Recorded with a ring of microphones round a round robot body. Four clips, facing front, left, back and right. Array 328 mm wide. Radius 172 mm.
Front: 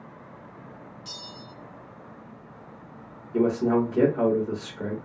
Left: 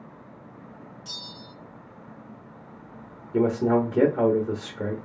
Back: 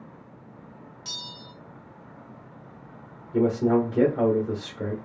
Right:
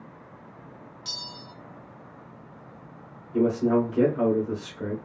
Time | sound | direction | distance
1.1 | a bell | 130° right | 0.7 m
3.3 | a man speaking | 80° left | 1.0 m